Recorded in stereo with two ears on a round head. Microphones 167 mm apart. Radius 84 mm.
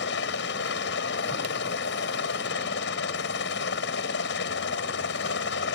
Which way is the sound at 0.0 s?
65° left (ahead or behind).